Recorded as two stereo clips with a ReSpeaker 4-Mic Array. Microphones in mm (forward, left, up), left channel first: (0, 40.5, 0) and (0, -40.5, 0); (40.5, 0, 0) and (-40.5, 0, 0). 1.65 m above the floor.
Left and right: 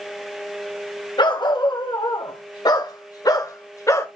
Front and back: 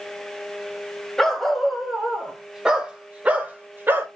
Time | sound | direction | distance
1.2 | a dog barking | 85° left | 3 m